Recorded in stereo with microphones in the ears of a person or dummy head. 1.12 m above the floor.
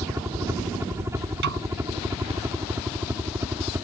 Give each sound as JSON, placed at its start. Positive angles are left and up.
{"t": 0.0, "sound": "a helicopter", "side_deg": -15}
{"t": 1.4, "sound": "a snare drum", "side_deg": -65}